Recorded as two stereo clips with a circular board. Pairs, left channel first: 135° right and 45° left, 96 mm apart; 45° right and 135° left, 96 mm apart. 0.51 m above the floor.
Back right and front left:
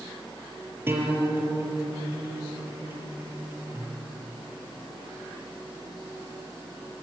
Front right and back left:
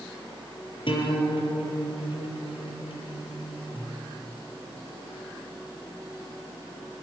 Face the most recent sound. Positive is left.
turn(degrees=-20)